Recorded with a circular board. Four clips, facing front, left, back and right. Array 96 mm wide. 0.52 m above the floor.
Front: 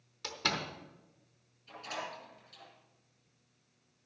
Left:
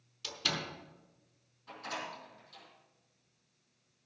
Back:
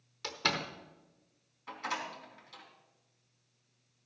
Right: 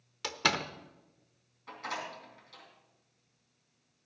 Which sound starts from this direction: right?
A door slam, at 0.2 s.